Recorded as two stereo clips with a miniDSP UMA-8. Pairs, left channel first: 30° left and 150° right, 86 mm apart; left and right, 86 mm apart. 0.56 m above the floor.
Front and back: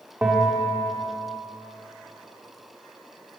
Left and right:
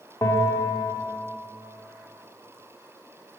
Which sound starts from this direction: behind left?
A bell, at 0.2 s.